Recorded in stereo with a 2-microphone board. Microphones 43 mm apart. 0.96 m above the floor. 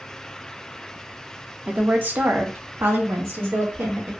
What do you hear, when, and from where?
1.7 s a woman speaking: 30° right (ahead or behind), 0.7 m; by 4.1 s 80° right, 1.5 m